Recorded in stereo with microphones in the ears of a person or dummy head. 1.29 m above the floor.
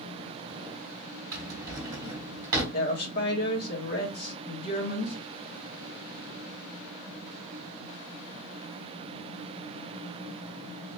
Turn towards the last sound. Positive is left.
turn(degrees=55)  # may be behind; listen again after turning